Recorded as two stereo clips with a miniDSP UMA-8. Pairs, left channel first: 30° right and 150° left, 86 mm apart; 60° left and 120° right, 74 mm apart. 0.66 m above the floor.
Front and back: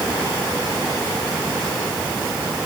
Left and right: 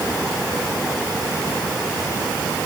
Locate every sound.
Only background noise.